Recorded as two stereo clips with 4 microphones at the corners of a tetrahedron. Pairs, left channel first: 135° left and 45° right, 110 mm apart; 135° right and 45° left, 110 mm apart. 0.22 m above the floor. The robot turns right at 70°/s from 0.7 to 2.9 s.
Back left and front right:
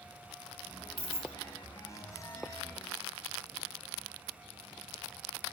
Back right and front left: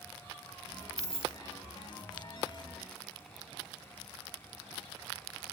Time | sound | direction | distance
1.0 | keys jangling | 40° left | 0.7 m